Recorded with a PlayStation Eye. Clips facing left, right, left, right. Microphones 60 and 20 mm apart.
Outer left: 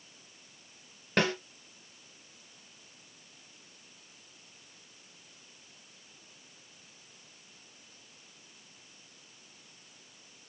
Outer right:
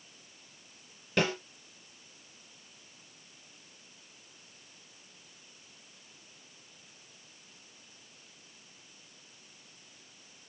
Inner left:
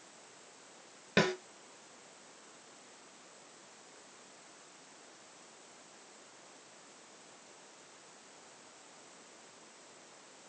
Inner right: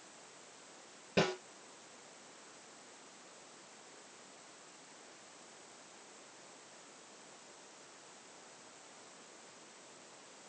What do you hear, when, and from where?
1.2 s a snare drum: 55° left (ahead or behind), 2.5 m